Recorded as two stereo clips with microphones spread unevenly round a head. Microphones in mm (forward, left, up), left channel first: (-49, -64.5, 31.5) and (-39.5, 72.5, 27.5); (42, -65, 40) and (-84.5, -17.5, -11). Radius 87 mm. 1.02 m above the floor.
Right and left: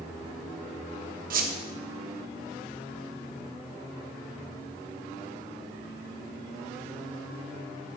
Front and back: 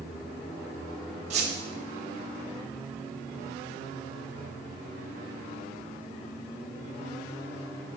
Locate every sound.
1.3 s a squeak: 105° left, 1.2 m